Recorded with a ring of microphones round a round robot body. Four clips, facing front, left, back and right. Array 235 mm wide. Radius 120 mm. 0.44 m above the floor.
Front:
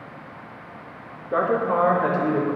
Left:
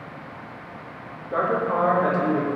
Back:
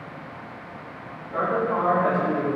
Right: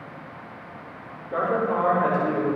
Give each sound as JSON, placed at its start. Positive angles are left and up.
{"t": 1.3, "sound": "a woman speaking", "azimuth_deg": 10, "distance_m": 5.0}